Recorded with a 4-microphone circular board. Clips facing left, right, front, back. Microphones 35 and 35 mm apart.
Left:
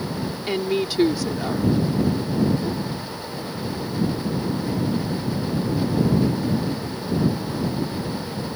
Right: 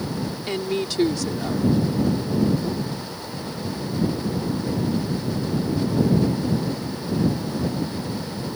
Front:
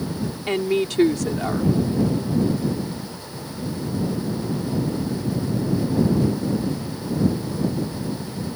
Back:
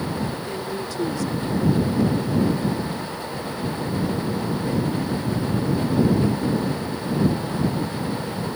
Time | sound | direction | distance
0.5 | a woman speaking | 15° left | ?